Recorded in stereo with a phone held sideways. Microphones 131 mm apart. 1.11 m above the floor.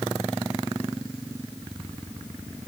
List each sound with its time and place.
Only background noise.